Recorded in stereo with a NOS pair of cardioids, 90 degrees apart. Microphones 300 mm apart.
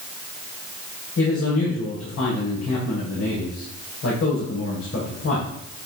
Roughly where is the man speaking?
Ahead left.